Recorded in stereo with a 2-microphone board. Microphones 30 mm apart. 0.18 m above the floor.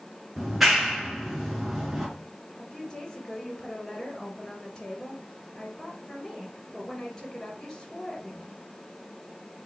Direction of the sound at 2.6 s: 20° left (ahead or behind).